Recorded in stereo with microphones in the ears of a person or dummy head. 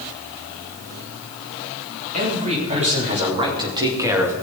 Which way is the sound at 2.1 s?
40° right (ahead or behind).